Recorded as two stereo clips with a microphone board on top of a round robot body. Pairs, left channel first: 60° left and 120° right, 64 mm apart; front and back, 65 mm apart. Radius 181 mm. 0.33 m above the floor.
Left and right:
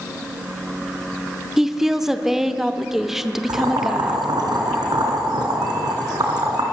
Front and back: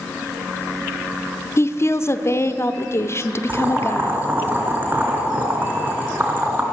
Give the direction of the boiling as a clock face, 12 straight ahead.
4 o'clock.